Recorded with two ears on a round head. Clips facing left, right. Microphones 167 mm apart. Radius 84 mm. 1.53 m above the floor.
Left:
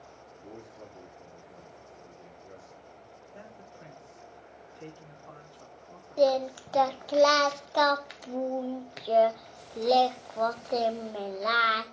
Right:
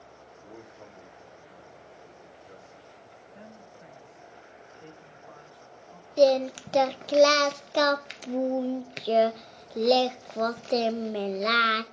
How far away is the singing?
About 0.6 m.